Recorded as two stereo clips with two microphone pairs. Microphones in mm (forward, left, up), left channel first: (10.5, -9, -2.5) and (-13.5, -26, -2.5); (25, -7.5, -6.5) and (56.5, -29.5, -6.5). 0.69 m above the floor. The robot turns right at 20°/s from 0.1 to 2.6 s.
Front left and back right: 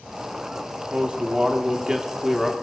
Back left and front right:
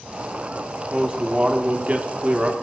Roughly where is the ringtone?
I don't hear a ringtone.